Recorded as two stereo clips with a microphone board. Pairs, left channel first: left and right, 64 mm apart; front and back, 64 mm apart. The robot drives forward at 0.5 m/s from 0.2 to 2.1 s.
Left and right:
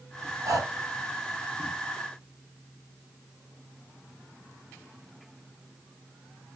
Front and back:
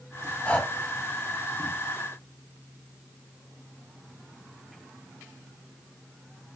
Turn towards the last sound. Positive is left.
turn(degrees=-90)